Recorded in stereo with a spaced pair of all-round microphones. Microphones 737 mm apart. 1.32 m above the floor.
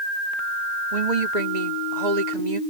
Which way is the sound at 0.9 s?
65° right (ahead or behind).